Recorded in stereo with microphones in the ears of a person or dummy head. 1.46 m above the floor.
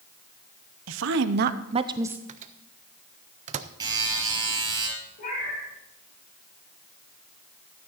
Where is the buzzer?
20° right (ahead or behind), 5 m.